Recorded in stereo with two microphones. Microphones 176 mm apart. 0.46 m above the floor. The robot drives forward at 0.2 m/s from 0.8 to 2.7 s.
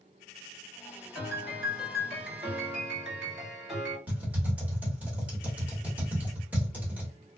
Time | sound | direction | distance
1.1 | a piano | 5° right (ahead or behind) | 1.9 m
4.1 | typing on a keyboard | 10° right (ahead or behind) | 1.2 m